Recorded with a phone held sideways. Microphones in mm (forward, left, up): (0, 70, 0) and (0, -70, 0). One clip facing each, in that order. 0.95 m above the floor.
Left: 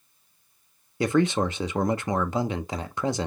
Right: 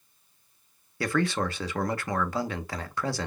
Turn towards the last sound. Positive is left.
turn(degrees=20)  # may be behind; listen again after turning